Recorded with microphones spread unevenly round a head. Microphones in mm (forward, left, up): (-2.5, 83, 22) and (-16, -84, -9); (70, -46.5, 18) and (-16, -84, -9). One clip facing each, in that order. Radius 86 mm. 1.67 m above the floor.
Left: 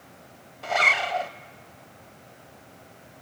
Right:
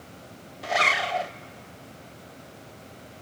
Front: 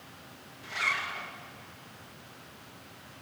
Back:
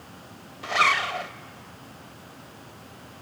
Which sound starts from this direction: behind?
A zipper, at 0.6 s.